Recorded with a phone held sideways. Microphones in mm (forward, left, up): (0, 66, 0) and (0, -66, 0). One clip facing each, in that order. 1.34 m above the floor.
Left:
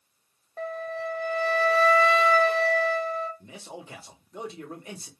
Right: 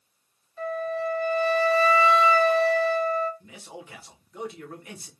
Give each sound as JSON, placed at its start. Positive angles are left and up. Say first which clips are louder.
{"t": 0.6, "sound": "a flute", "louder": "right 4 dB", "side_deg": 60, "distance_m": 0.8}
{"t": 3.4, "sound": "a man speaking", "louder": "left 1 dB", "side_deg": 30, "distance_m": 1.2}